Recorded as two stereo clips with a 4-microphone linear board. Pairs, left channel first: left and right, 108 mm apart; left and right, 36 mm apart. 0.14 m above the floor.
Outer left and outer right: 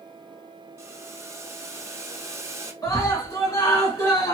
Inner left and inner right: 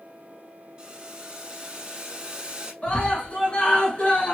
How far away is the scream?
About 1.5 m.